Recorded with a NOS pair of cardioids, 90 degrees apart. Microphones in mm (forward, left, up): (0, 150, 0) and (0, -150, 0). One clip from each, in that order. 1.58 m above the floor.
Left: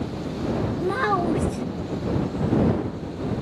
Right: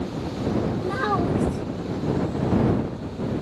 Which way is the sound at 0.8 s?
40° left.